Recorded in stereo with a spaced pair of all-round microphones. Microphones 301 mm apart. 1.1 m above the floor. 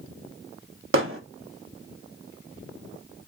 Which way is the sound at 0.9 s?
50° right (ahead or behind).